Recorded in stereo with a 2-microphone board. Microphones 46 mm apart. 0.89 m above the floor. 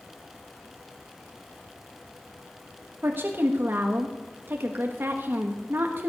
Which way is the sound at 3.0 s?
55° right (ahead or behind).